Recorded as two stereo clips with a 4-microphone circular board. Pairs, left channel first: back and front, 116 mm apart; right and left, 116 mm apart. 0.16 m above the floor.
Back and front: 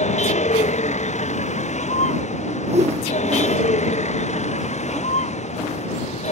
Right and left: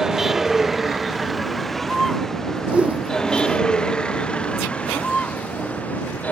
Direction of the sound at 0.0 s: 175° left.